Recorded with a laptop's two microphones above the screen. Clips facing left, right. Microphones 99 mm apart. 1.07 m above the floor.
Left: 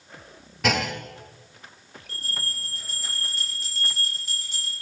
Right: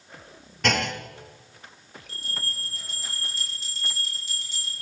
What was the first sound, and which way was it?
A clunk, 5° left (ahead or behind).